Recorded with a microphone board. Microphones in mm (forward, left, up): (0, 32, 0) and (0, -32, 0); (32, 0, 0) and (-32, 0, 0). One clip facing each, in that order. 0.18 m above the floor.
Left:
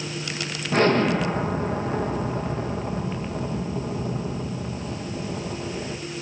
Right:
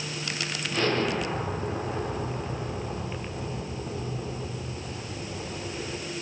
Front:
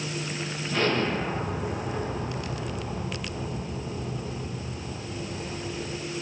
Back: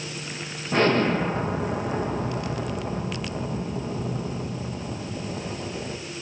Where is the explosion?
135° left, 9.5 m.